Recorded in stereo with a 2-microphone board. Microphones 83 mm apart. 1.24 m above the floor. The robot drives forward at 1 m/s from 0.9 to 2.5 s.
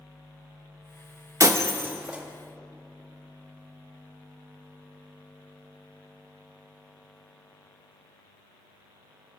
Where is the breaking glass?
35° right (ahead or behind), 0.6 m; by 2.2 s 15° right (ahead or behind), 1.3 m.